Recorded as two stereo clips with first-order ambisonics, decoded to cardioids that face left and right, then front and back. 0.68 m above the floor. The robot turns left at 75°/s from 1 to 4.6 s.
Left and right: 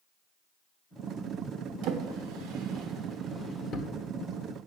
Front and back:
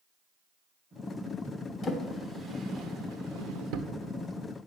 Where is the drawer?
65° right, 1.0 m; by 3.9 s 140° left, 1.0 m.